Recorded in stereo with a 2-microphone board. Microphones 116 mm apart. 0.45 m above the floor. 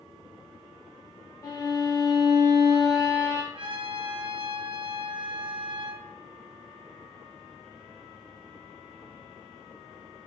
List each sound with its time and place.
1.4 s a violin: 30° left (ahead or behind), 0.6 m
3.5 s a trumpet: 45° right (ahead or behind), 0.5 m